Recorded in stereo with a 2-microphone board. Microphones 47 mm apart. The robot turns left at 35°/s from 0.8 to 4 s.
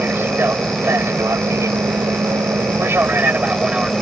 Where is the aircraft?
50° right (ahead or behind); by 4.0 s 15° right (ahead or behind).